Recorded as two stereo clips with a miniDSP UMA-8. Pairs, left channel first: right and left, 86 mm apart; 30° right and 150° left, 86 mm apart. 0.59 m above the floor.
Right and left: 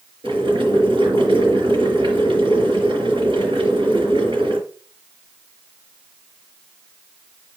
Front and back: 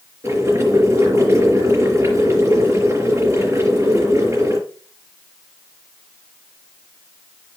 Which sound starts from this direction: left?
Boiling, at 0.2 s.